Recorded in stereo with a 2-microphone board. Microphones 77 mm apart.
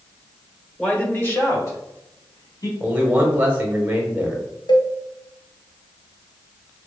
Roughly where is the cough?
I don't hear a cough.